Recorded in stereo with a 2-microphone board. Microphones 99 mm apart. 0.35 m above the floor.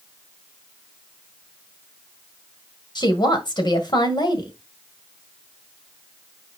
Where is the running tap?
No running tap in this recording.